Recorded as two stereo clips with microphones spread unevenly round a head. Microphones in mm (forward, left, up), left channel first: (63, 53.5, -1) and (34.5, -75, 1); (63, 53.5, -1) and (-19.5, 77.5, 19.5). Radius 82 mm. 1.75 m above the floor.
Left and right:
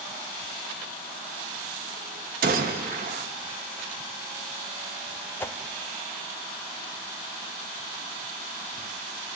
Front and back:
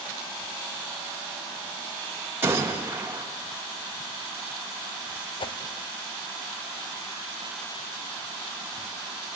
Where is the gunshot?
125° right, 1.9 m.